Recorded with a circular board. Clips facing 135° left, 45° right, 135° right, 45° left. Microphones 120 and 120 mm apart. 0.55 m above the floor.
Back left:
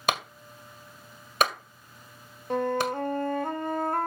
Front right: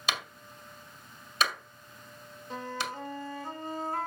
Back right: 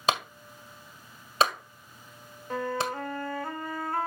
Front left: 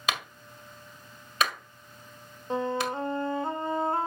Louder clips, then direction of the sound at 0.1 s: Back left 7 dB, back right 5 dB; 170° left.